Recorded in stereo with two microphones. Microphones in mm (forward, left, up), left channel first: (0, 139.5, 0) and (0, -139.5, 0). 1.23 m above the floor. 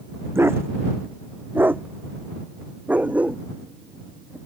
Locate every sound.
0.3 s a dog barking: 10° right (ahead or behind); by 4.4 s 5° right (ahead or behind)